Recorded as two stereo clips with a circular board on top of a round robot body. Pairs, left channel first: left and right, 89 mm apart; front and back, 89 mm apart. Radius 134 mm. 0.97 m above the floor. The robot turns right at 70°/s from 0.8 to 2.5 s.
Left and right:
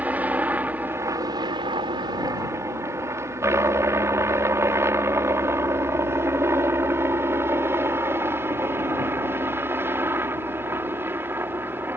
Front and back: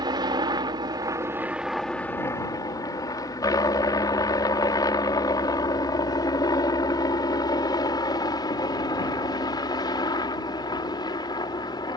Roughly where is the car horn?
I don't hear a car horn.